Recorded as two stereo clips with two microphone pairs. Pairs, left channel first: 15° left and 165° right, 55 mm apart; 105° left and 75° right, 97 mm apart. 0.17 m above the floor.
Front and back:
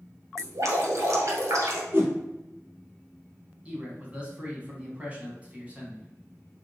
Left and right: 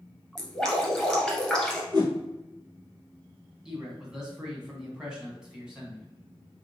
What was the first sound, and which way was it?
Dripping, 170° right.